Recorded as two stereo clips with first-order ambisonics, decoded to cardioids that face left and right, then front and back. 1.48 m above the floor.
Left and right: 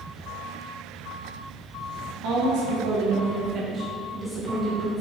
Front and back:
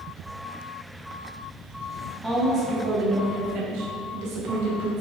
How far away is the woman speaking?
About 1.5 m.